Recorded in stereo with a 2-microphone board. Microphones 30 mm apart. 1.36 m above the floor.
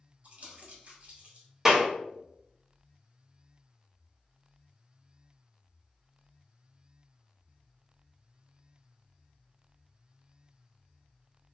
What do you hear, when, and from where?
0.2 s crumpling: 60° right (ahead or behind), 1.7 m
1.6 s a clap: 15° right (ahead or behind), 1.1 m